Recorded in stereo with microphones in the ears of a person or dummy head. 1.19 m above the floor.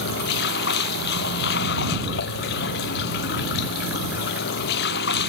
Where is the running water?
70° left (ahead or behind).